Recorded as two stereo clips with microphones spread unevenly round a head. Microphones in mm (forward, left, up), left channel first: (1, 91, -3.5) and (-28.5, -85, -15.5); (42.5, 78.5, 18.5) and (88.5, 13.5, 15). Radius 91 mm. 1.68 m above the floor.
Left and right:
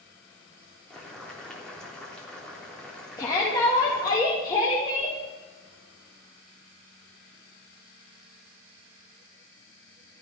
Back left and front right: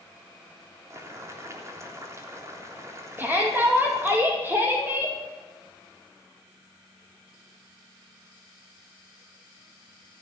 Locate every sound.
0.9 s boiling: 5° right, 3.5 m
3.2 s a shout: 10° left, 2.5 m